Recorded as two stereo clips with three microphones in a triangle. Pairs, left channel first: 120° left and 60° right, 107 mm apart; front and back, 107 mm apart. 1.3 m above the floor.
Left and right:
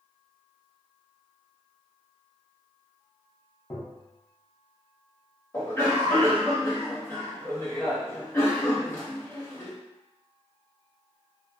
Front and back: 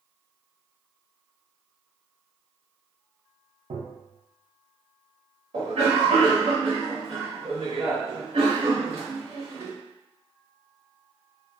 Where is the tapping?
Straight behind, 0.6 m.